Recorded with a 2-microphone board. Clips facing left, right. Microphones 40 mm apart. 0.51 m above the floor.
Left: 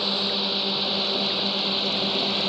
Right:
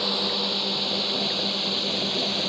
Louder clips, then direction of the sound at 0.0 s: Even; 10° left (ahead or behind).